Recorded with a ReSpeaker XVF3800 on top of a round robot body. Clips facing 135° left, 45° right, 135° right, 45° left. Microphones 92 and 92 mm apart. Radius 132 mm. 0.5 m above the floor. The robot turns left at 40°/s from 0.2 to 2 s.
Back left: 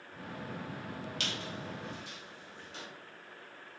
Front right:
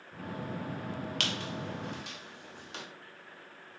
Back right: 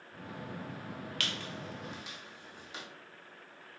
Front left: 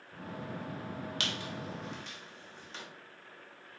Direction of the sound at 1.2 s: 25° right.